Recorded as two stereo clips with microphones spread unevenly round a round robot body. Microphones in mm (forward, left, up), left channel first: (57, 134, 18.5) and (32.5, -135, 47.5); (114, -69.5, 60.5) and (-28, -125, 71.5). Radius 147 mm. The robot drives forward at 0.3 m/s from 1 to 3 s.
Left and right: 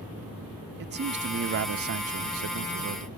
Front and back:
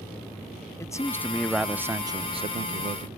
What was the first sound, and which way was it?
A man speaking, 45° right.